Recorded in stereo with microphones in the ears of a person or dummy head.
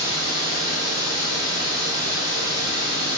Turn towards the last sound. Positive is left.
turn(degrees=5)  # may be behind; listen again after turning